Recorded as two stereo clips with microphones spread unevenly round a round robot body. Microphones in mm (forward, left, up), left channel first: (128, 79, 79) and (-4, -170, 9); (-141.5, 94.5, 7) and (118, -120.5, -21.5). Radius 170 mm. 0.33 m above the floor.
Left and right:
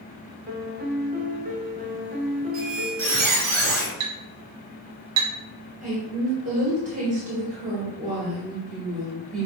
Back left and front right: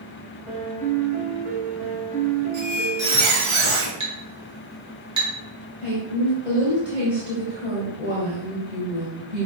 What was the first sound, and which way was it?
A piano, 95° right.